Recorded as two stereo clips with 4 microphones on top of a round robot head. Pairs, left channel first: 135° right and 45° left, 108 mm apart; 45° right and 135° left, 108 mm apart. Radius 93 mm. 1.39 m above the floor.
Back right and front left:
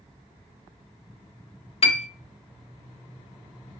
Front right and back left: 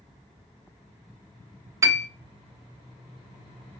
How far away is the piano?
About 0.6 m.